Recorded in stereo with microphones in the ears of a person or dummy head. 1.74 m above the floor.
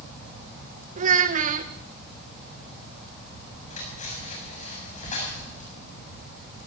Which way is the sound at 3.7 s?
45° left (ahead or behind).